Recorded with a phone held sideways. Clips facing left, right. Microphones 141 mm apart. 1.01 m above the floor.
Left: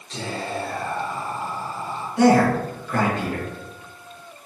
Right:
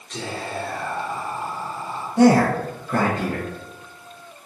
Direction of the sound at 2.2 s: 35° right (ahead or behind).